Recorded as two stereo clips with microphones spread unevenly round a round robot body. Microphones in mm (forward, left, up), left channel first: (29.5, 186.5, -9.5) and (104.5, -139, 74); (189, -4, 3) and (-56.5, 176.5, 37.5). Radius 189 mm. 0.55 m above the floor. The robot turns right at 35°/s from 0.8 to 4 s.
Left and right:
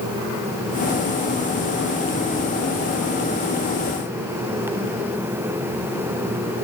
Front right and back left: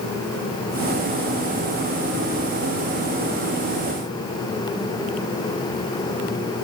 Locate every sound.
Only background noise.